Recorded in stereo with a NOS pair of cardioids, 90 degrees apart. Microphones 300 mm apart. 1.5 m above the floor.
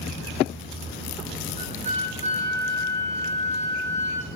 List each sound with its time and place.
1.6 s a flute: 25° right, 6 m